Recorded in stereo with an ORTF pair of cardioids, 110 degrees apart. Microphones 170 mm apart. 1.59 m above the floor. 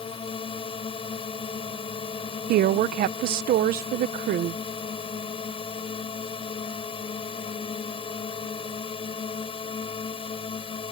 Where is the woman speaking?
65° right.